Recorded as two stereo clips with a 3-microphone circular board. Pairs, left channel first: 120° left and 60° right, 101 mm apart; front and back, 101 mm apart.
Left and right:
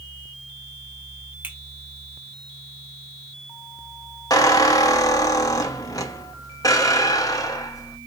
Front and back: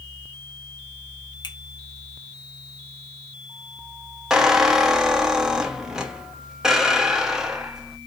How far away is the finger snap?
About 0.9 m.